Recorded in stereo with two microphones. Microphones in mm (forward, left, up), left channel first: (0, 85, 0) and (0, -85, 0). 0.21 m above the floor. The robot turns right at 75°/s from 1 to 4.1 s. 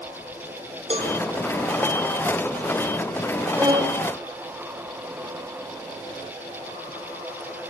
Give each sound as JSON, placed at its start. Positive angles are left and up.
{"t": 0.9, "sound": "a cowbell", "side_deg": -40, "distance_m": 3.0}
{"t": 3.5, "sound": "a violin", "azimuth_deg": -170, "distance_m": 1.6}